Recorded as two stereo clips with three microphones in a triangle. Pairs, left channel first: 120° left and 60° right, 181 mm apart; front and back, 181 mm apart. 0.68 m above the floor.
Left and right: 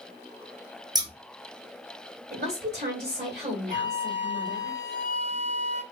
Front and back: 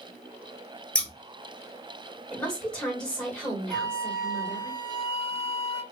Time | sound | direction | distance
0.9 | scissors | 70° right | 0.7 m
2.3 | a woman speaking | 85° right | 1.6 m
3.7 | a flute | 105° right | 1.1 m